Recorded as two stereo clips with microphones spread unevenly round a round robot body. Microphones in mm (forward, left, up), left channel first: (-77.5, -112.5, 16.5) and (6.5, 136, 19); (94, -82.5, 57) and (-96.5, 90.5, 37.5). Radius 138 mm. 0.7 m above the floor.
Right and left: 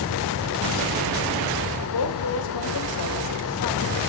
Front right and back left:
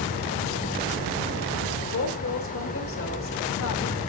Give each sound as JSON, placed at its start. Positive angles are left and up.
{"t": 1.9, "sound": "a woman speaking", "azimuth_deg": -85, "distance_m": 2.5}